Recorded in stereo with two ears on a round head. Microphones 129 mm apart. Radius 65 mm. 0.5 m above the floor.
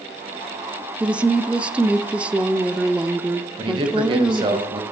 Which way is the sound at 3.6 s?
30° right (ahead or behind).